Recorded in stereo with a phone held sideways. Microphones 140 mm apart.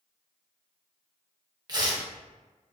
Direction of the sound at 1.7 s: 30° right (ahead or behind).